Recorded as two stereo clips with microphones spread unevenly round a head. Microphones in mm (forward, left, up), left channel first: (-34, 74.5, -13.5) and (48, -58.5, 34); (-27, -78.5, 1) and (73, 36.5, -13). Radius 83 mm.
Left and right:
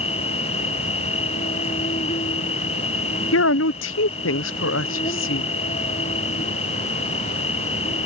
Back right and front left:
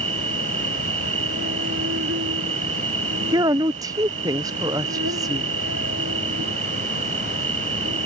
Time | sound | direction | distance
0.0 | an insect | 65° left | ?
3.3 | a woman speaking | 120° left | ?